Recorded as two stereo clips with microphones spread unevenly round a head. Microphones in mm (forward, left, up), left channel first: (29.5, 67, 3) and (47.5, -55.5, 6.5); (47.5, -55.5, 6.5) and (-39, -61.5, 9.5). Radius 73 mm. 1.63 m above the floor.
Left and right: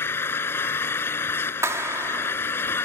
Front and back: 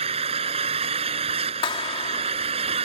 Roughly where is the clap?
Ahead.